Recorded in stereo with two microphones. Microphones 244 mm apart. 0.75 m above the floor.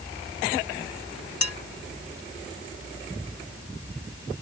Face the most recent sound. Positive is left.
turn(degrees=85)